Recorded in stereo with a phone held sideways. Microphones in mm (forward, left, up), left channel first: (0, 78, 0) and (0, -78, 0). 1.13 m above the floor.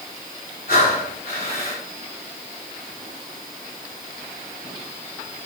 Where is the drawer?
No drawer in this recording.